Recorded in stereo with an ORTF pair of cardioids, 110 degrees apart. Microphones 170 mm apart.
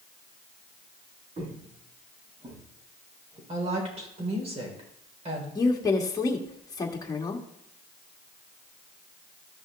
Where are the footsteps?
40° right, 5 m; by 3.4 s 25° right, 5 m.